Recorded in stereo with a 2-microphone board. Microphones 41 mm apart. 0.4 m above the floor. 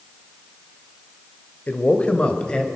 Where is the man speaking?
40° left (ahead or behind), 1.6 m; by 2.7 s 20° left (ahead or behind), 2 m.